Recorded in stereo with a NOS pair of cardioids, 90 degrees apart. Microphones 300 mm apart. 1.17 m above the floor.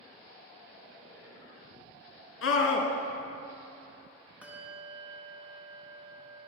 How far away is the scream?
About 1.4 m.